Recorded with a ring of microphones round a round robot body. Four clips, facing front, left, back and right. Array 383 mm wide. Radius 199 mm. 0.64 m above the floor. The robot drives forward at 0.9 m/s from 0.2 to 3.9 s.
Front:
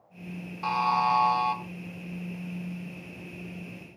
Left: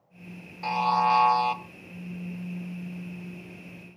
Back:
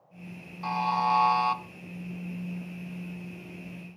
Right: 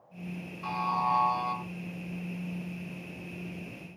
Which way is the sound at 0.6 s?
60° left.